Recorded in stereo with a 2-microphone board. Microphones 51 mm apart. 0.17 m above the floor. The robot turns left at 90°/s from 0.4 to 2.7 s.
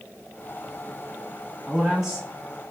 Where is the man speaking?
5° left (ahead or behind), 1.0 m; by 2.3 s 15° right (ahead or behind), 1.0 m.